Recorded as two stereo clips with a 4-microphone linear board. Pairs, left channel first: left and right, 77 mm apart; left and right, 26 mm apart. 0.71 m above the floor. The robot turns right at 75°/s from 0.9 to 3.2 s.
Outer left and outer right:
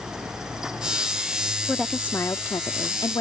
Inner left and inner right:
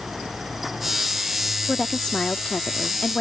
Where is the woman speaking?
Straight ahead; by 3.2 s 110° left.